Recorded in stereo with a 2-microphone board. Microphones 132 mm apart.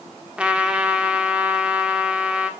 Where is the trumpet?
10° right (ahead or behind), 1.6 m.